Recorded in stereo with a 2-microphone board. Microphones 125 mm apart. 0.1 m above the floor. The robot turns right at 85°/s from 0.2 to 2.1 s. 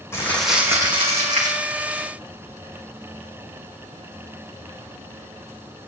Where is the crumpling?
160° left, 3.5 m; by 1.6 s 80° right, 3.5 m.